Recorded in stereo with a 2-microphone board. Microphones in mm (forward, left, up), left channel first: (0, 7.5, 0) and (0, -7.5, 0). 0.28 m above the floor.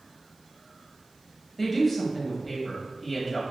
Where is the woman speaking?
10° left (ahead or behind), 1.4 m.